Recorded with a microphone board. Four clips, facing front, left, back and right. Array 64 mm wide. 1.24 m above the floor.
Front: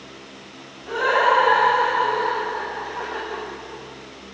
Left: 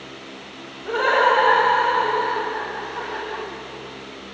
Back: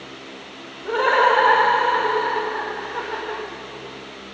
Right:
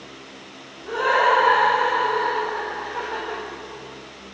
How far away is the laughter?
About 5 m.